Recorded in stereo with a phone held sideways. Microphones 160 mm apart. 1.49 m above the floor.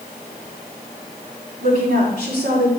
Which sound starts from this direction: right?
A woman speaking, at 1.6 s.